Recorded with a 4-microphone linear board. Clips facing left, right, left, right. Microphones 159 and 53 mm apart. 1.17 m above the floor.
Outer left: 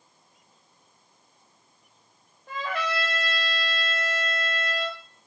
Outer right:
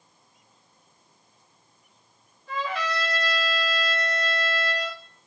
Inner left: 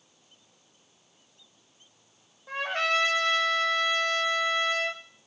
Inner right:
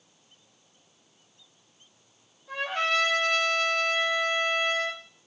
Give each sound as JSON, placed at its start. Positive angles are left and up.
{"t": 2.5, "sound": "a trumpet", "side_deg": 55, "distance_m": 0.6}